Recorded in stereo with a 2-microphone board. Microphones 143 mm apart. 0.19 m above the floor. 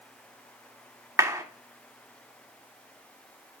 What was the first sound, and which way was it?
A clap, 25° right (ahead or behind).